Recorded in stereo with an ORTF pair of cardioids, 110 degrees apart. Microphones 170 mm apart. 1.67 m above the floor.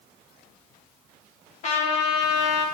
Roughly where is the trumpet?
Ahead left.